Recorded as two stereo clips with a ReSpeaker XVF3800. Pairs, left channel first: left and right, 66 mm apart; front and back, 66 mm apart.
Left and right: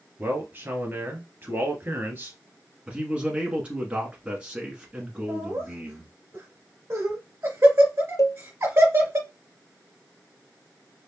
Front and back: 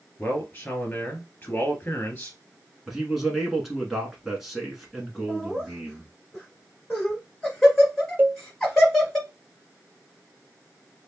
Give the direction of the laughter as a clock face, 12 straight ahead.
3 o'clock.